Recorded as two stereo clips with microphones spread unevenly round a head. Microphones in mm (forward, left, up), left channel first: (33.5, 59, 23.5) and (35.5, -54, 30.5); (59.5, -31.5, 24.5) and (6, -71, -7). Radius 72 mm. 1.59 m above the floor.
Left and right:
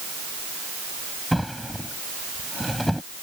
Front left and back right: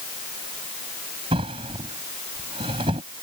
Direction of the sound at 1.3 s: Straight behind.